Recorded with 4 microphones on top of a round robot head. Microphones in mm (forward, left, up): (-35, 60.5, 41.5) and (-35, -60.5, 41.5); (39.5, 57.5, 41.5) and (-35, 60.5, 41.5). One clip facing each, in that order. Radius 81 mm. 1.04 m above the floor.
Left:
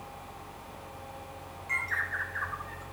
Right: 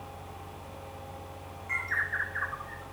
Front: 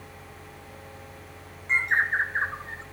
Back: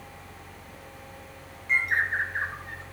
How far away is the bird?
About 0.8 m.